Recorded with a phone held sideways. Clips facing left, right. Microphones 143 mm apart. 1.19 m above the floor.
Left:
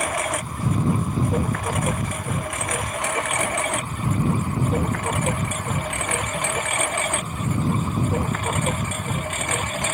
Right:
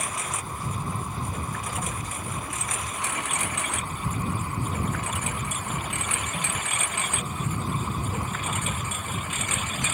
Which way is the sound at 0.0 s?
65° left (ahead or behind).